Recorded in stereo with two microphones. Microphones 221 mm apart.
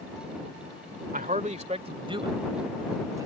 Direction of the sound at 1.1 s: 40° right (ahead or behind).